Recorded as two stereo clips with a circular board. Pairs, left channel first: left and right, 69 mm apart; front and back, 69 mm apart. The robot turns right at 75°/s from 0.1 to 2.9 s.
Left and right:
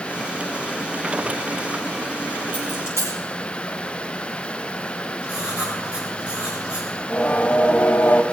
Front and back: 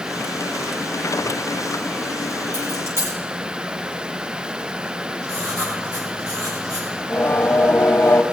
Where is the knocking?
No knocking in this recording.